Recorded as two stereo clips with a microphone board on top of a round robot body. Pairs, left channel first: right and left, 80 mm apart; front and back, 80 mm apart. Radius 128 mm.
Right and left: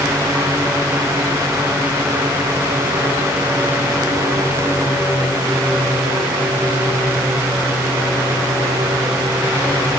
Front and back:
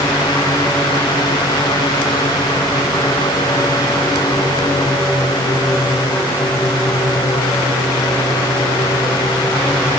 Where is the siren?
No siren in this recording.